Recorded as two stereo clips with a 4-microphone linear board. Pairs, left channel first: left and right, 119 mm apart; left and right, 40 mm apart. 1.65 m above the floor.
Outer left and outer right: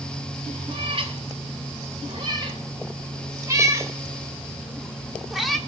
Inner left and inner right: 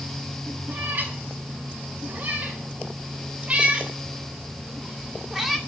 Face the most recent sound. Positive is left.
turn(degrees=0)  # may be behind; listen again after turning